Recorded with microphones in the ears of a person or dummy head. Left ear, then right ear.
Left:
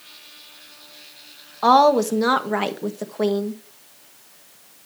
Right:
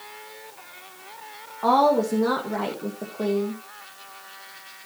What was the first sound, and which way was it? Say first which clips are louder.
A woman speaking: left 4 dB; 75° left (ahead or behind).